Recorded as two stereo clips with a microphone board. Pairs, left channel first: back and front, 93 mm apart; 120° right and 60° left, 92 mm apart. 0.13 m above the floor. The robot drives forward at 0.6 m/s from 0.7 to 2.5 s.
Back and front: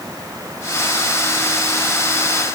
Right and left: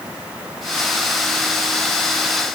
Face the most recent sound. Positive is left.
No sound to turn to.